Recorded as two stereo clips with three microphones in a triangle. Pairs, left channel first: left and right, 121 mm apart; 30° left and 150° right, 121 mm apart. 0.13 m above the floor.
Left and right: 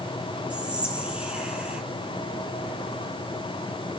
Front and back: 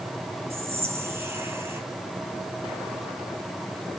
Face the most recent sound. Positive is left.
turn(degrees=-150)